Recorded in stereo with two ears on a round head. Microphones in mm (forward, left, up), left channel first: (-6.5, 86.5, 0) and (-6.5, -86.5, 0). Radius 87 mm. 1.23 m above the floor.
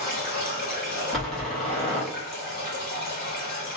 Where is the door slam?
Centre (ahead or behind), 0.8 m.